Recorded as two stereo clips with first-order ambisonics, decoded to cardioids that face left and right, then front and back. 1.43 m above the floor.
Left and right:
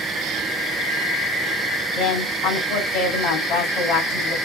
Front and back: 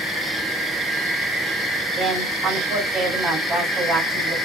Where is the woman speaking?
120° left, 3.5 m.